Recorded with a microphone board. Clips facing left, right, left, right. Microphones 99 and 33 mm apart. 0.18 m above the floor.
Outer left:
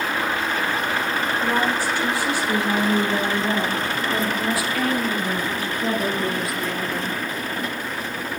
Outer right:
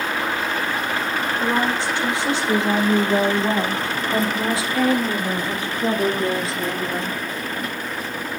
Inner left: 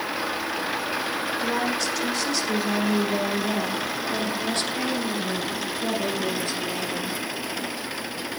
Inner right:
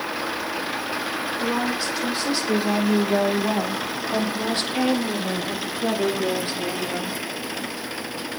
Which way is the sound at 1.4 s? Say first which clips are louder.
Outer right 1 dB, inner right 2 dB; 25° right (ahead or behind).